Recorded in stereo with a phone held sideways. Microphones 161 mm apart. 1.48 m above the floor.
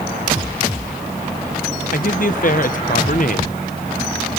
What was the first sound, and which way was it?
A man speaking, 60° left (ahead or behind).